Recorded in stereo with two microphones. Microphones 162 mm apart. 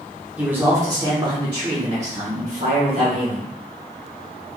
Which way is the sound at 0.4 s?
10° right (ahead or behind).